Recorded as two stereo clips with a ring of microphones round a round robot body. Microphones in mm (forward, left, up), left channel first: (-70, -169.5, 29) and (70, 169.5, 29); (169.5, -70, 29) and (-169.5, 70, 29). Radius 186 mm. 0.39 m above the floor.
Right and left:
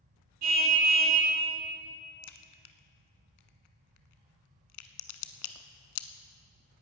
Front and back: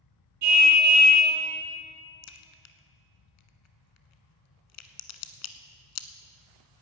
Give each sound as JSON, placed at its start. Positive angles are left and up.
{"t": 0.4, "sound": "a car horn", "azimuth_deg": 115, "distance_m": 4.5}
{"t": 2.2, "sound": "a crack", "azimuth_deg": -70, "distance_m": 0.9}